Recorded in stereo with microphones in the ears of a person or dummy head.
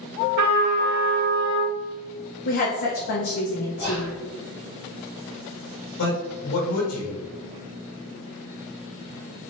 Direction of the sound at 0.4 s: 55° right (ahead or behind).